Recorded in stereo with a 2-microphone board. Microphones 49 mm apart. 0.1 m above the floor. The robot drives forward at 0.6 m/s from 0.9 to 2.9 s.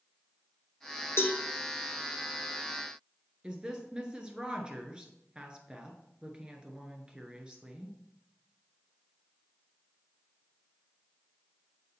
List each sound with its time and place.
1.2 s a cowbell: 60° left (ahead or behind), 1.0 m; by 1.4 s 50° left (ahead or behind), 1.1 m
3.4 s a woman speaking: 20° right (ahead or behind), 1.2 m